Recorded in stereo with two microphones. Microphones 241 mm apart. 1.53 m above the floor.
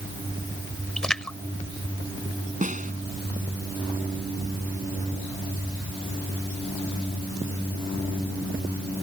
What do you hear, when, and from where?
1.0 s a splash: 5° left (ahead or behind)
2.6 s a snare drum: 30° right (ahead or behind)